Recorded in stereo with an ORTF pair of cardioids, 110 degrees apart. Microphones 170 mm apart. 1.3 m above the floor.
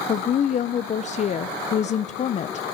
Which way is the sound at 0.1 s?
40° left.